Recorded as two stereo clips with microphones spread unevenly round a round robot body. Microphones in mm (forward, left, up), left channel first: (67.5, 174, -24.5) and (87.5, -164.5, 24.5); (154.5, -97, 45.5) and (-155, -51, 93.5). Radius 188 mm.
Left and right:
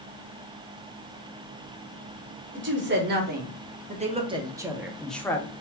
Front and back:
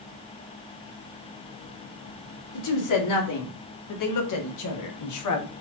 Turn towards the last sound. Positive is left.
turn(degrees=20)